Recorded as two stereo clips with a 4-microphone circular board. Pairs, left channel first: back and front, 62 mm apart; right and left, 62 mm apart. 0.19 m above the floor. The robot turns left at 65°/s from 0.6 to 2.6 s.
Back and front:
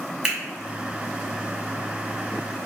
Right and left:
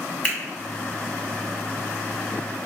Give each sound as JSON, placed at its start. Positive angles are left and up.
{"t": 0.2, "sound": "a finger snap", "azimuth_deg": -50, "distance_m": 0.9}